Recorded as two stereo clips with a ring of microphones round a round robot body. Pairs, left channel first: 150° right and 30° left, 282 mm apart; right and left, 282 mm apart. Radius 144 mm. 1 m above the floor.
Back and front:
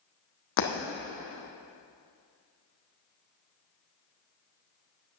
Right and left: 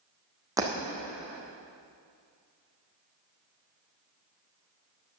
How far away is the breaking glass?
About 2.5 m.